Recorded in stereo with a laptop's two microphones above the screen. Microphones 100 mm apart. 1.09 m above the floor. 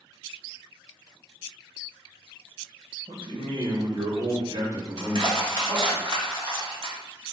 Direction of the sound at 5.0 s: 50° right (ahead or behind).